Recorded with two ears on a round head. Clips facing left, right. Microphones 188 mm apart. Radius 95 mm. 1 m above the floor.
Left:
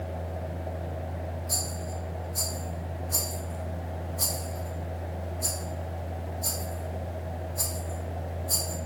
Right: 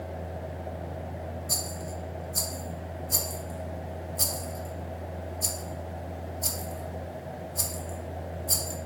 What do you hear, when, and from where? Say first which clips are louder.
1.5 s a rattle: even; 35° right (ahead or behind), 0.6 m